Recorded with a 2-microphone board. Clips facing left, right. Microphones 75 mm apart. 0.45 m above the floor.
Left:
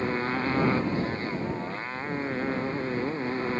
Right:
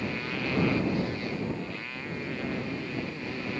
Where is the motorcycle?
40° left (ahead or behind).